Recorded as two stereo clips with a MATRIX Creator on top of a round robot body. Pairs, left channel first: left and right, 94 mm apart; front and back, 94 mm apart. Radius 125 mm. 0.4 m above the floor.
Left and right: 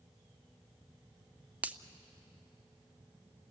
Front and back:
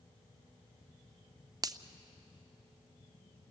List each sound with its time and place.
1.6 s a finger snap: 155° right, 0.8 m